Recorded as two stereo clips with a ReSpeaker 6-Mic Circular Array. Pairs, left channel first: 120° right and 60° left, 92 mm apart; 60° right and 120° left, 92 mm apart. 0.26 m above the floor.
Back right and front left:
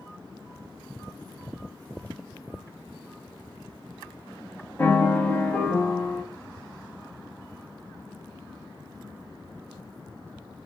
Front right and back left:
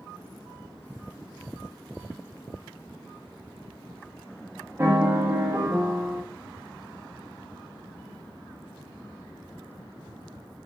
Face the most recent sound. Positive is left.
turn(degrees=180)